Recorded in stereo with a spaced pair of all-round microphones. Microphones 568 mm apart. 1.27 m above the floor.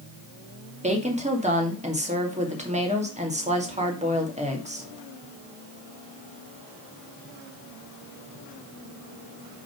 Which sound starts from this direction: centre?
A woman speaking, at 0.8 s.